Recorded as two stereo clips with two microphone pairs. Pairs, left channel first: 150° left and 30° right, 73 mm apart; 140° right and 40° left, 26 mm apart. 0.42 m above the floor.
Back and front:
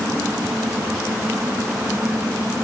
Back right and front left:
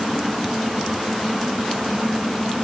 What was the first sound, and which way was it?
Only background noise.